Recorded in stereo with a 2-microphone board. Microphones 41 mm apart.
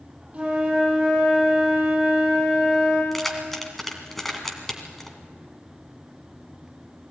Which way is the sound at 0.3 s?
25° right (ahead or behind).